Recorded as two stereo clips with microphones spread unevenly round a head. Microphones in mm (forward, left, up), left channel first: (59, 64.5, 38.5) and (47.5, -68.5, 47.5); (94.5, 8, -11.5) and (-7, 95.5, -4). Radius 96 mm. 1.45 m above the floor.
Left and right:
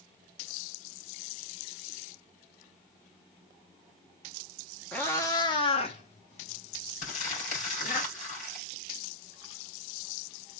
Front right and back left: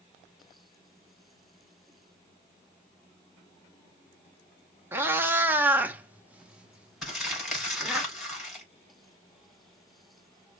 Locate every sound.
4.9 s a cat meowing: 170° left, 0.9 m; by 8.0 s 55° left, 2 m
7.0 s crumpling: 50° left, 5 m